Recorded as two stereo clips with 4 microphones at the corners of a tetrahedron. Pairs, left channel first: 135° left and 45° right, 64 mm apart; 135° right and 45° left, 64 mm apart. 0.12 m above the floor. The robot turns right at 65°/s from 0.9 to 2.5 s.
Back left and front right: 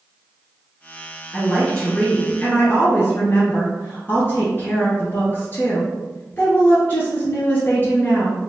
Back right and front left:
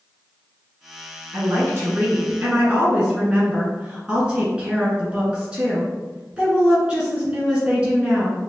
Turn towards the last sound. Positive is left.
turn(degrees=115)